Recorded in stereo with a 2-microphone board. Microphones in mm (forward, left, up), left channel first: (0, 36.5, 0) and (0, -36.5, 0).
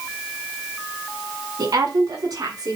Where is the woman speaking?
75° right (ahead or behind), 7.5 m; by 2.8 s 70° right (ahead or behind), 8 m.